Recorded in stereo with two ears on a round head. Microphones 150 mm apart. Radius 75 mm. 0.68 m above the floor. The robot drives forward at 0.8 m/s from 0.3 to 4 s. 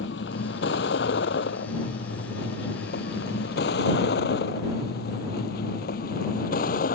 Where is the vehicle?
70° left (ahead or behind); by 7.0 s 50° left (ahead or behind).